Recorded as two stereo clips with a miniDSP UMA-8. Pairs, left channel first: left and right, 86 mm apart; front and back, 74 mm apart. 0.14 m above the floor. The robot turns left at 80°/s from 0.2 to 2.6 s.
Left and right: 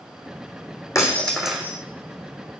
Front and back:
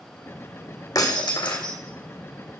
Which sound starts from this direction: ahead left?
Breaking glass, at 0.9 s.